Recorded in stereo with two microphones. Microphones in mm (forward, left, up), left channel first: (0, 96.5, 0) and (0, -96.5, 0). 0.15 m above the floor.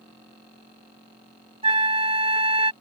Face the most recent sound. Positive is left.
turn(degrees=-30)  # may be behind; listen again after turning